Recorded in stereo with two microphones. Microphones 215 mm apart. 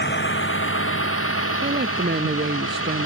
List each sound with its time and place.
0.0 s a vehicle: 55° left (ahead or behind); by 3.1 s 85° left
1.6 s a woman speaking: 50° right (ahead or behind)